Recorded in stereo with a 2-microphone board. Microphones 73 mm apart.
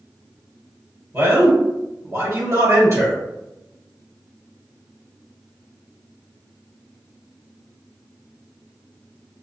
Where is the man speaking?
40° right (ahead or behind), 1.9 m.